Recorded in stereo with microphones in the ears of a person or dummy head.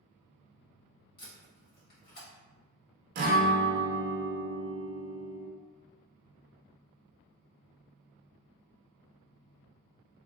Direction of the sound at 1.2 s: 50° left (ahead or behind).